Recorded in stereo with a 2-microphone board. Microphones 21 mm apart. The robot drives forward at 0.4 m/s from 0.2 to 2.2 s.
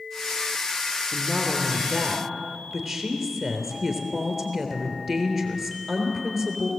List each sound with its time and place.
1.1 s a woman speaking: 5° right (ahead or behind), 3 m